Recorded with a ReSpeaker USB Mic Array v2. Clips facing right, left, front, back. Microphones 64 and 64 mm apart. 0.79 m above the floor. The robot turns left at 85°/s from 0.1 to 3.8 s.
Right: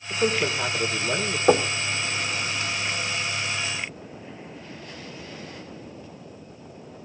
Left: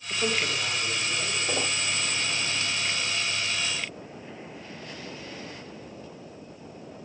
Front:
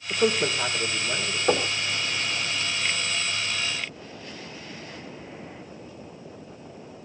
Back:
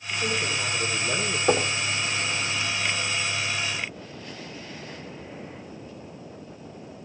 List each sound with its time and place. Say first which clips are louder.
0.1 s a man speaking: right 4 dB, front 4 dB; 20° right, 3 m; by 1.4 s 130° right, 3 m
1.5 s knocking: right 13 dB, back 1 dB; 90° right, 1.8 m; by 1.8 s 115° right, 1.8 m